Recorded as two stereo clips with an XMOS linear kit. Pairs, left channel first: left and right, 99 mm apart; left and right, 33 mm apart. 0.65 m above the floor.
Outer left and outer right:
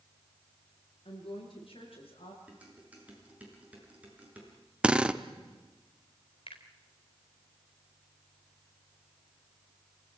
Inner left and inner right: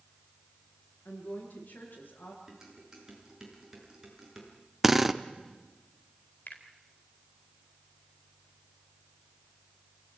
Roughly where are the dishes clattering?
Centre.